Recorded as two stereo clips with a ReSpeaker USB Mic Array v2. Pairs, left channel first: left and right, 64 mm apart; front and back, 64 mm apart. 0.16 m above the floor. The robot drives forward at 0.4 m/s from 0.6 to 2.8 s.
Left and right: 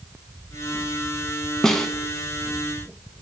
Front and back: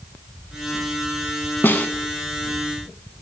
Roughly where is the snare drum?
Ahead.